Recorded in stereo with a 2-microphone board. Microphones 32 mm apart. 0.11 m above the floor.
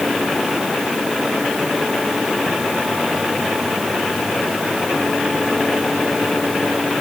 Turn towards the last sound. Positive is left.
No sound to turn to.